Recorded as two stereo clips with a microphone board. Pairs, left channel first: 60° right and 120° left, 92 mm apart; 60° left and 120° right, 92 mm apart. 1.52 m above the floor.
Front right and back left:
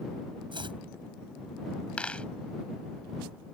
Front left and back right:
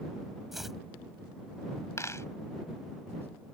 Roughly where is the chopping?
Behind left.